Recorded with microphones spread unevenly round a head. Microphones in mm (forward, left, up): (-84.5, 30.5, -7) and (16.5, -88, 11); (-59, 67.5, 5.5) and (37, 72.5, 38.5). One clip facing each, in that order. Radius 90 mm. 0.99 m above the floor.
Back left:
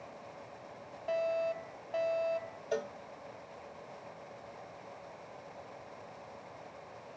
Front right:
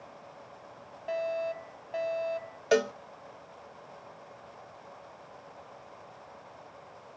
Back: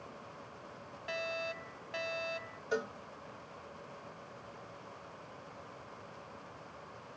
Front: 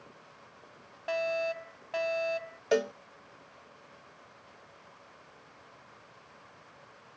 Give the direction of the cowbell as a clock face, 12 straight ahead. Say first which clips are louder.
Front right 11 dB, front 9 dB; 2 o'clock.